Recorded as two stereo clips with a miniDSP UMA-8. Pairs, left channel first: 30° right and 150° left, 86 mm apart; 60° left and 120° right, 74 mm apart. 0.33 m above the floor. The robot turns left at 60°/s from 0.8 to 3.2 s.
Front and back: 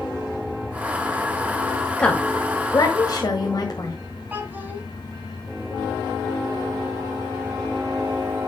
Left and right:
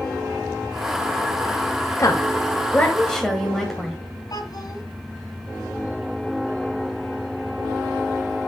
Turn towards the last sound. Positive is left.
turn(degrees=80)